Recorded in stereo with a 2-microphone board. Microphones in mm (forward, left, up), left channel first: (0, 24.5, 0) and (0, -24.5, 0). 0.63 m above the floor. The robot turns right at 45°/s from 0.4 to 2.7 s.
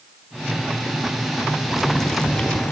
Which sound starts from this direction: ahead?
Boiling, at 1.7 s.